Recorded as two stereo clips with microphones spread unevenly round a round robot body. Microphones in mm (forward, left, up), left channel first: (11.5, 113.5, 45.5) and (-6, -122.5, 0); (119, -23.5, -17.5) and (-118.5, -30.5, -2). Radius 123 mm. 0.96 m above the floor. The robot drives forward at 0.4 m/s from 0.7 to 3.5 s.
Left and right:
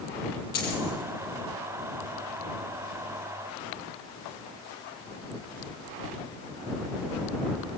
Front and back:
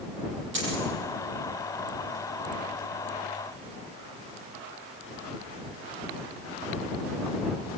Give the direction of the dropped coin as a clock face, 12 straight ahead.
7 o'clock.